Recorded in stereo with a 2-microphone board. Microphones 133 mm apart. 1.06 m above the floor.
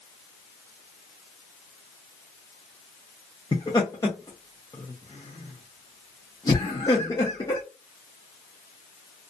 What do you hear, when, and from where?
3.5 s laughter: 30° left (ahead or behind), 0.7 m